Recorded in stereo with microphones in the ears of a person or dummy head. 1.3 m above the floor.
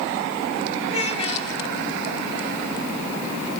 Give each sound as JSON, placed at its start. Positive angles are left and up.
{"t": 0.9, "sound": "a child speaking", "side_deg": 35, "distance_m": 4.5}